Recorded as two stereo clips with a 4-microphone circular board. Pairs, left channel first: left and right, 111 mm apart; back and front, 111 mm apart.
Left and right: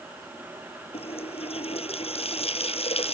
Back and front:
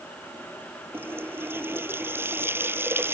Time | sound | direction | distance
0.9 | a running tap | 70° left | ?